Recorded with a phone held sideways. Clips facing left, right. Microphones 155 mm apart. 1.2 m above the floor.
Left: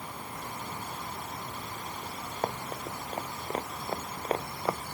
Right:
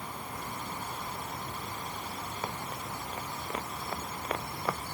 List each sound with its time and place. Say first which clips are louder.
2.4 s running footsteps: left 7 dB; 50° left (ahead or behind); by 4.8 s 25° left (ahead or behind)